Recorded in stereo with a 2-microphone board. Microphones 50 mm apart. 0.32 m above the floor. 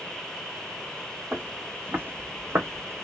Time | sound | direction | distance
1.3 | footsteps | 25° right (ahead or behind) | 1.1 m